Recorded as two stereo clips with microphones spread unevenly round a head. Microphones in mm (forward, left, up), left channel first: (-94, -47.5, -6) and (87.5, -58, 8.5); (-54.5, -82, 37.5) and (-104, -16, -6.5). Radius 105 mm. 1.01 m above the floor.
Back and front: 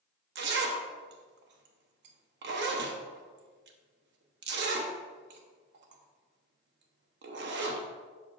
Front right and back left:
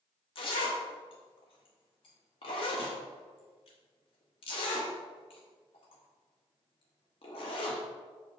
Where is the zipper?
25° right, 0.9 m.